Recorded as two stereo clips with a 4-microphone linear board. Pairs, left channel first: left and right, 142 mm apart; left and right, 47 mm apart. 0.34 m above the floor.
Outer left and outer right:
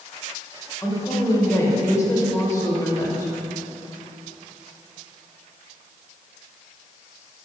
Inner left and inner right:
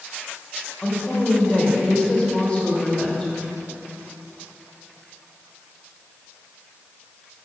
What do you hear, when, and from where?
0.8 s a woman speaking: 25° left (ahead or behind), 1.1 m